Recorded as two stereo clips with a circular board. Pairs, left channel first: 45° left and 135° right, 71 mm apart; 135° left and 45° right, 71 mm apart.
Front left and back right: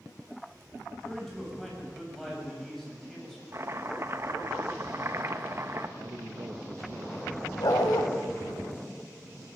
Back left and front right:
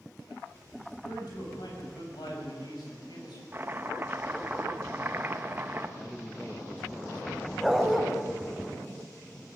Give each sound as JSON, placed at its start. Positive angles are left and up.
{"t": 1.0, "sound": "a man speaking", "azimuth_deg": 130, "distance_m": 7.0}
{"t": 3.5, "sound": "chopping", "azimuth_deg": -100, "distance_m": 1.1}
{"t": 6.0, "sound": "a man speaking", "azimuth_deg": -135, "distance_m": 1.0}
{"t": 7.6, "sound": "a dog barking", "azimuth_deg": 45, "distance_m": 2.0}